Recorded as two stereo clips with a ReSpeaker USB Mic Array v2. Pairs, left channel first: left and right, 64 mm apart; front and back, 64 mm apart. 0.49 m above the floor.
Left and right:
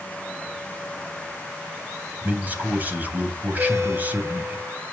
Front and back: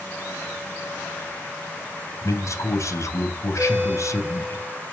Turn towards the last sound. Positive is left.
turn(degrees=-120)